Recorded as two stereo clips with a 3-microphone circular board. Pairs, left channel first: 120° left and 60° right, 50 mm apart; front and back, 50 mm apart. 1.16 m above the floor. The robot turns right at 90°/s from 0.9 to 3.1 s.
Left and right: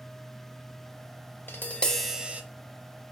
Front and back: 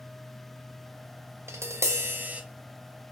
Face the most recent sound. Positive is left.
turn(degrees=-55)